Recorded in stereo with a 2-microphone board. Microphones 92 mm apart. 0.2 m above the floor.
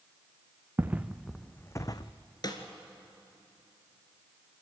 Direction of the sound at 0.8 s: 20° right (ahead or behind).